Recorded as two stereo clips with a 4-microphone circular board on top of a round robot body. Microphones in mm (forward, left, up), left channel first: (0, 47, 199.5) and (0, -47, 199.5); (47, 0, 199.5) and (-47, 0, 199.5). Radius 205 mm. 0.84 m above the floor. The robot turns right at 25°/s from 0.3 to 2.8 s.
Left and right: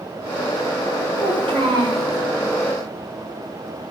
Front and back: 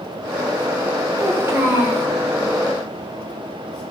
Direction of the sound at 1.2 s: 125° right.